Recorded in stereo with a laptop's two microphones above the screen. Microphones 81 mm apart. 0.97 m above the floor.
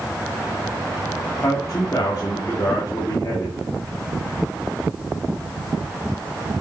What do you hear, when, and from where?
1.4 s a man speaking: 50° left (ahead or behind), 2.5 m